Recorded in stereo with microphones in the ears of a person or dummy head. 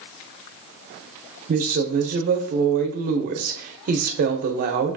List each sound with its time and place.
1.5 s a woman speaking: 45° right (ahead or behind), 0.7 m